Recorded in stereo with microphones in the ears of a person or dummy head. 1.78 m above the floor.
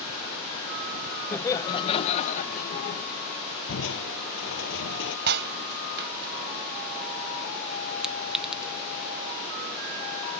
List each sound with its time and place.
1.3 s laughter: 15° left (ahead or behind); by 3.0 s 55° left (ahead or behind)
3.7 s crushing: 75° left (ahead or behind)
5.3 s breaking glass: 60° right (ahead or behind)
8.0 s a clink: centre (ahead or behind)